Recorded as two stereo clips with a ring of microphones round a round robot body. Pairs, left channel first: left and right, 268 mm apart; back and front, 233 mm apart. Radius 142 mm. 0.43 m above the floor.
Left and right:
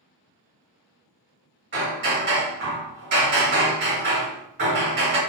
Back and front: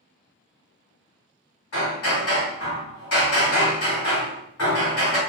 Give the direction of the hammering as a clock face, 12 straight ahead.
5 o'clock.